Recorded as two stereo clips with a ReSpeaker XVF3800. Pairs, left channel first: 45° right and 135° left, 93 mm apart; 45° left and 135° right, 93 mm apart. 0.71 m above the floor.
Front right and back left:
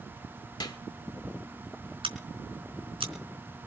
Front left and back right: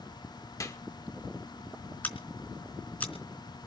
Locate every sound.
0.6 s a clap: 5° right, 1.9 m
2.0 s scissors: 120° left, 4 m